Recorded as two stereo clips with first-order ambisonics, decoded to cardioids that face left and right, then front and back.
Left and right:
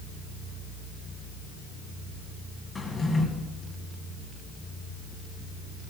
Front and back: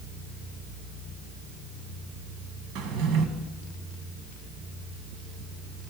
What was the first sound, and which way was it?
A drawer, 170° left.